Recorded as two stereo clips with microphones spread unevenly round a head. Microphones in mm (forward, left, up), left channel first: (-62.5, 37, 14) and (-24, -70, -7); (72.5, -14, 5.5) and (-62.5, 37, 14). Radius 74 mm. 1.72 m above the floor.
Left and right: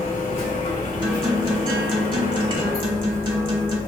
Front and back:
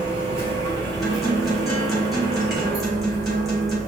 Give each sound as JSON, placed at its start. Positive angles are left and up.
{"t": 0.0, "sound": "a machine running", "azimuth_deg": 105, "distance_m": 1.9}
{"t": 1.0, "sound": "a guitar", "azimuth_deg": -115, "distance_m": 1.1}